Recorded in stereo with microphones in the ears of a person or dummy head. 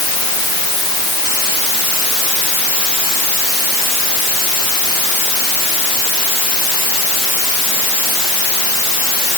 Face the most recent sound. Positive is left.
No sound to turn to.